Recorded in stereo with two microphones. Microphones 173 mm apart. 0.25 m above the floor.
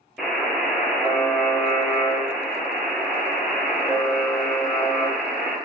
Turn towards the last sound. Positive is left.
turn(degrees=0)  # may be behind; listen again after turning